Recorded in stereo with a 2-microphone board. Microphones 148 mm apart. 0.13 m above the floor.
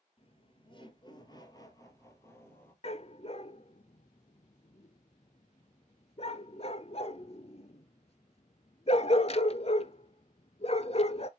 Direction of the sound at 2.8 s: 45° left (ahead or behind).